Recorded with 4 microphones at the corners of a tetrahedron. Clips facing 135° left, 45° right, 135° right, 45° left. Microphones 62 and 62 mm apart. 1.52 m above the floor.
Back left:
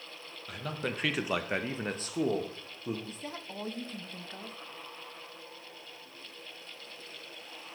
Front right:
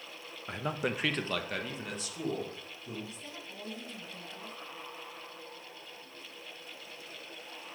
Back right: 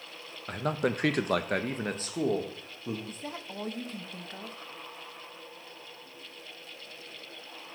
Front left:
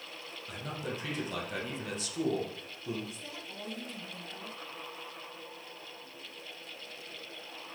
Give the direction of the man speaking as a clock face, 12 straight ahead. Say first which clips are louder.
Front right 3 dB, back right 10 dB; 3 o'clock.